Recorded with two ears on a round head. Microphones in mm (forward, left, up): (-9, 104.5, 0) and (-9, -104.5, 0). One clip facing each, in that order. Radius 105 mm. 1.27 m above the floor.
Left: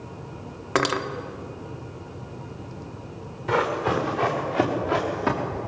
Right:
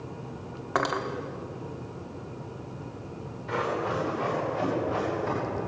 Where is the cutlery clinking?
40° left (ahead or behind), 1.2 m.